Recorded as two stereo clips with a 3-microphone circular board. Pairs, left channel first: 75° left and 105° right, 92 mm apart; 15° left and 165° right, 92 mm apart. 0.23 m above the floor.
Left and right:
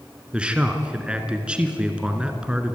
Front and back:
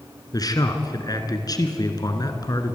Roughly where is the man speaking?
Ahead right.